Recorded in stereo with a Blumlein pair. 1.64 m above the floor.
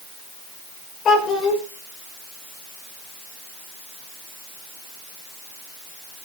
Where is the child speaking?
25° left, 4.5 m.